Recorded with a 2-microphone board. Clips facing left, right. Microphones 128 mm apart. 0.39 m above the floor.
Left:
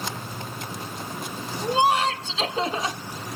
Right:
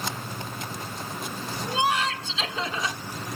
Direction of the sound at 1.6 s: 35° left (ahead or behind).